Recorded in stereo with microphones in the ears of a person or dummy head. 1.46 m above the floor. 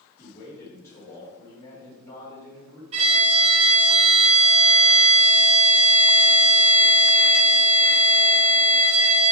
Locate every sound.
0.2 s a man speaking: 10° left (ahead or behind), 2.5 m
2.9 s a violin: 35° right (ahead or behind), 1.5 m